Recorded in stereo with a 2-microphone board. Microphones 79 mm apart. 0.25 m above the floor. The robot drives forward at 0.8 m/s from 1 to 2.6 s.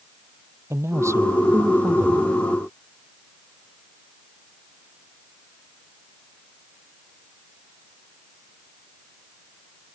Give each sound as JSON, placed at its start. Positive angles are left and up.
{"t": 0.7, "sound": "a man speaking", "side_deg": -40}